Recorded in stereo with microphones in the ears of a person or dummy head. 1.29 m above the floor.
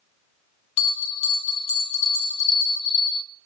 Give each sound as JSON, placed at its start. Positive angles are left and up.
{"t": 0.8, "sound": "a bell", "side_deg": 35, "distance_m": 2.5}